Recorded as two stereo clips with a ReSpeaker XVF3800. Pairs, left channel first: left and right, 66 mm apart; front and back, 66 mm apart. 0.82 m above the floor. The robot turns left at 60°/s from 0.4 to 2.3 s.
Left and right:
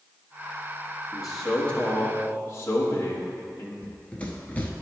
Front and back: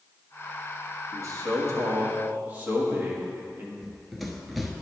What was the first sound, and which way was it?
A man speaking, 165° right.